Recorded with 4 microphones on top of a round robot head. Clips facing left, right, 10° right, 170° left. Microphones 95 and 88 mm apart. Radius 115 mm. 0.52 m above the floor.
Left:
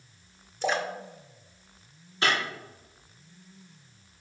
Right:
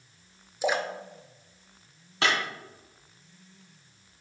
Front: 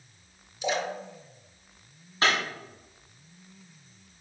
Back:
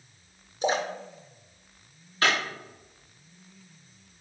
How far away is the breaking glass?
About 2 m.